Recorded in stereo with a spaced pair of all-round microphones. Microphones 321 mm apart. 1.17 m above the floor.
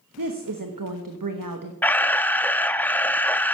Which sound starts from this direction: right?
A woman speaking, at 0.2 s.